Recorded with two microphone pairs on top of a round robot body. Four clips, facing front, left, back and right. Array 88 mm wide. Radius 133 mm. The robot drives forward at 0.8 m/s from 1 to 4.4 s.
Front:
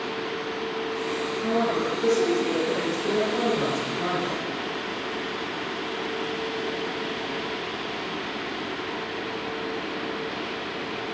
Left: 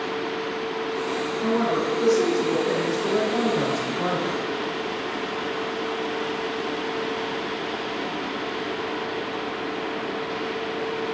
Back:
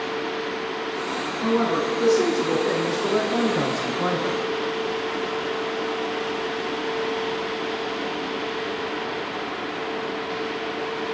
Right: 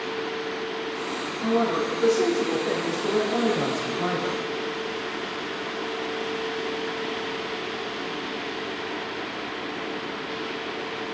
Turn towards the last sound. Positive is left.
turn(degrees=175)